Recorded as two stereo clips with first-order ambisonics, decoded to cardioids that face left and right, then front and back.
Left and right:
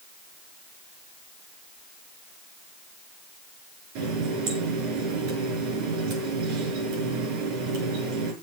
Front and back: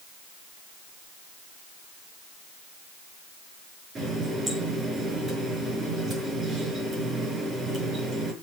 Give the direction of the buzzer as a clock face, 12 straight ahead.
No buzzer in this recording.